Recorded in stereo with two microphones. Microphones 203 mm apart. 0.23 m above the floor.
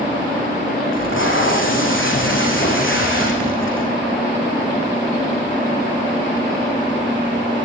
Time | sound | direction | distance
0.9 | tape being pulled | 75° left (ahead or behind) | 6.5 m